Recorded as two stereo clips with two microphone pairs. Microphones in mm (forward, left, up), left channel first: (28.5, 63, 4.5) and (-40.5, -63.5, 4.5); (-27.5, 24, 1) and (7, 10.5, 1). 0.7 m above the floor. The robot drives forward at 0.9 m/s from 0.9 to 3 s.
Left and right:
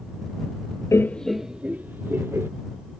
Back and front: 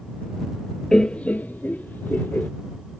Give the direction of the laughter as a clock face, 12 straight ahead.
8 o'clock.